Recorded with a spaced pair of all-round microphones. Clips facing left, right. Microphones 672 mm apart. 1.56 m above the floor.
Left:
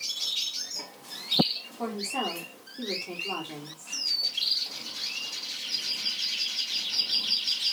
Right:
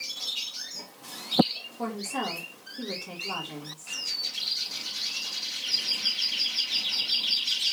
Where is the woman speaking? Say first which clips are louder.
Even; 45° right (ahead or behind), 4 m.